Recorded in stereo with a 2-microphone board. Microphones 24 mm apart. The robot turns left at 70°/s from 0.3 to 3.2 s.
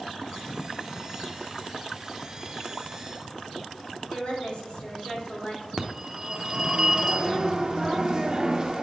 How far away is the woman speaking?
About 3.5 m.